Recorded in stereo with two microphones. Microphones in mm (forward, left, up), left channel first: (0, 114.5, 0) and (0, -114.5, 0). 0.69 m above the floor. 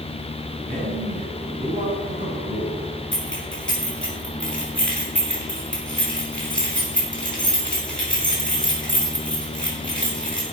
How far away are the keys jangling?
About 4.5 m.